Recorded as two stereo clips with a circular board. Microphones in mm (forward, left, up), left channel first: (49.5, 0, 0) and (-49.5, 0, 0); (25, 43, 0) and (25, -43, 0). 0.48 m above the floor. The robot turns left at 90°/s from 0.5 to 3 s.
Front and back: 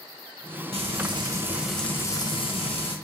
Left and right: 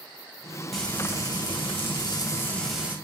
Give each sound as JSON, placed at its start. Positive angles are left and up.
{"t": 0.7, "sound": "frying", "azimuth_deg": 180, "distance_m": 2.5}